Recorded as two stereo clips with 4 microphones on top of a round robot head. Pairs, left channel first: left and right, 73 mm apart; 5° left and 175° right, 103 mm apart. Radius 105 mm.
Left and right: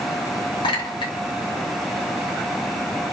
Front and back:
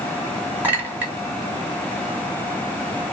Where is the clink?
115° left, 0.7 m.